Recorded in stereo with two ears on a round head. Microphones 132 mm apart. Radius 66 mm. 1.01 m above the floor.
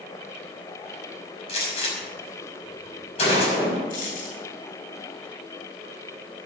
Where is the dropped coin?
60° left (ahead or behind), 7.5 m.